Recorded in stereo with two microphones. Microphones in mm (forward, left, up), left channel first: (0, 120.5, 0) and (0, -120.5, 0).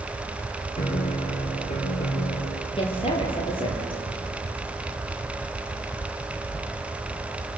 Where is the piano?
30° left (ahead or behind), 5.5 m.